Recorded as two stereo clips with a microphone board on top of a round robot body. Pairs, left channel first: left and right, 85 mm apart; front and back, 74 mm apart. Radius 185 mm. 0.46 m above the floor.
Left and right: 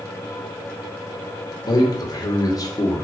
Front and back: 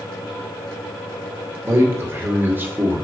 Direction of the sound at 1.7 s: 130° left.